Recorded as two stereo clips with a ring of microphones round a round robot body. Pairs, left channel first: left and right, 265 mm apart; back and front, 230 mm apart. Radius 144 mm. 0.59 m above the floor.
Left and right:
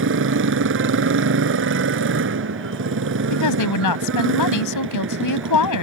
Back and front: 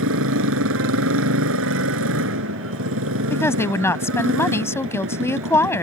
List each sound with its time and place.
0.0 s a motorcycle: 45° right
3.3 s a woman speaking: 100° left